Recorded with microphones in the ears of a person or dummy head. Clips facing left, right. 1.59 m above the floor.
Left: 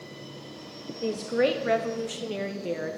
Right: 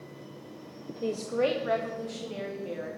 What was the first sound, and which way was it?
A woman speaking, centre (ahead or behind).